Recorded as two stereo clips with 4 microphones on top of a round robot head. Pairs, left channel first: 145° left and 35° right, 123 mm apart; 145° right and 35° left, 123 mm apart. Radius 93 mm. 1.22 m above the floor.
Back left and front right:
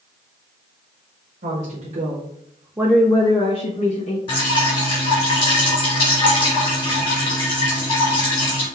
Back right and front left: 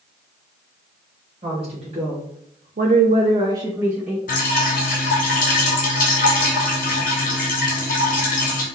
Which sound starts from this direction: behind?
Dripping, at 4.3 s.